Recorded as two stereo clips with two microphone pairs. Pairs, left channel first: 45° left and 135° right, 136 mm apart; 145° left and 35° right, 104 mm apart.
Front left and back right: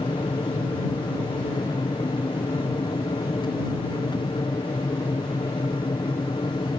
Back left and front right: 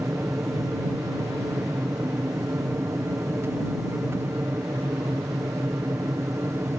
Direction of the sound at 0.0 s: 15° left.